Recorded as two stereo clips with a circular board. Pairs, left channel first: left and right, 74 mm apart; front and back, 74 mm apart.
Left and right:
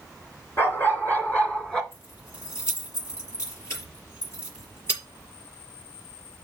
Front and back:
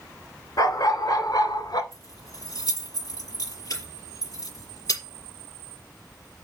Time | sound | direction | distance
0.6 | a dog barking | 35° left | 2 m
1.9 | keys jangling | 40° left | 5 m